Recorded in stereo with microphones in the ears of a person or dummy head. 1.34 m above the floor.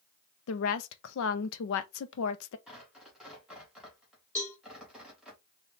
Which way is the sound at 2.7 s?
Centre (ahead or behind).